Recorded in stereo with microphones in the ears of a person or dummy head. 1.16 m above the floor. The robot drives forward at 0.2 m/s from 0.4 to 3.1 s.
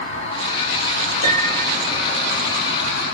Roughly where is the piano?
Left.